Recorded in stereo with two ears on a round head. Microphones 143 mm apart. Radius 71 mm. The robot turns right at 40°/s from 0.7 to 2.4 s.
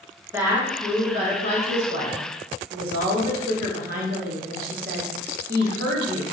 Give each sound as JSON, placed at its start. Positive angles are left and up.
{"t": 0.3, "sound": "a woman speaking", "azimuth_deg": -160, "distance_m": 1.2}